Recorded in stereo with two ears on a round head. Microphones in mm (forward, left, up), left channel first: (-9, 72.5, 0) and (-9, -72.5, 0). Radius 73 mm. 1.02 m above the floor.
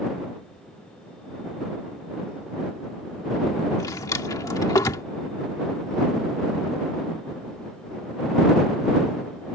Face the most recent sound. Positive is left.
turn(degrees=20)  # may be behind; listen again after turning